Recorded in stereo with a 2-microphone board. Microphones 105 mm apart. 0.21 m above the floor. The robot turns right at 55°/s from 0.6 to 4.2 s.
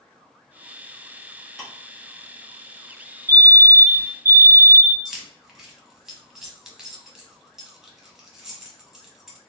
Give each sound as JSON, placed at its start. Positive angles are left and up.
{"t": 1.6, "sound": "ticking", "side_deg": 0, "distance_m": 2.0}
{"t": 3.3, "sound": "a fire alarm", "side_deg": 20, "distance_m": 1.9}
{"t": 5.0, "sound": "keys jangling", "side_deg": -5, "distance_m": 0.8}